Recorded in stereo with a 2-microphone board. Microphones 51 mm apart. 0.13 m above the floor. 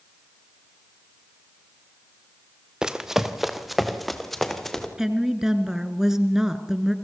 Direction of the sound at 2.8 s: 15° right (ahead or behind).